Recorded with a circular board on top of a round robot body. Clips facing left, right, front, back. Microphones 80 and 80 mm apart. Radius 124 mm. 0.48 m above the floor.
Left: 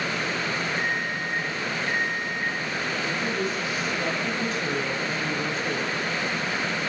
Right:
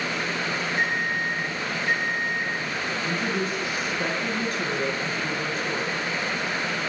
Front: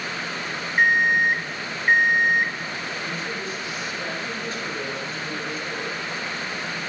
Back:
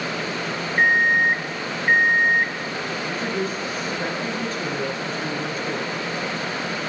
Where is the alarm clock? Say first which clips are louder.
Right 2 dB, back 1 dB; 85° right, 2.5 m.